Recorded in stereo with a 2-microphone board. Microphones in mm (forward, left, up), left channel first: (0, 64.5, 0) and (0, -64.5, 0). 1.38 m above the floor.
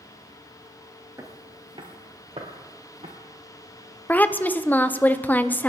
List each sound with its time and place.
1.2 s footsteps: 20° right (ahead or behind), 1.4 m; by 3.1 s 55° right (ahead or behind), 3 m
4.1 s a woman speaking: 15° left (ahead or behind), 0.6 m